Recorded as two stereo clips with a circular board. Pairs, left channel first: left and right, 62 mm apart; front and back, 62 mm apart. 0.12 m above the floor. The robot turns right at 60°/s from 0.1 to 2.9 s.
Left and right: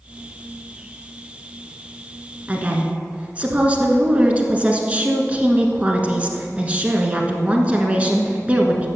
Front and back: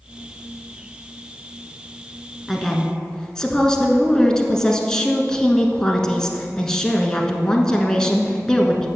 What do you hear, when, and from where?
2.5 s a woman speaking: 90° right, 1.2 m; by 8.9 s 65° right, 1.2 m